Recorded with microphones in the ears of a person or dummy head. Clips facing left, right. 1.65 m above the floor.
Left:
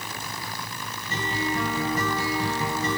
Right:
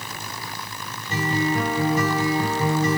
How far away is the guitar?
About 3 m.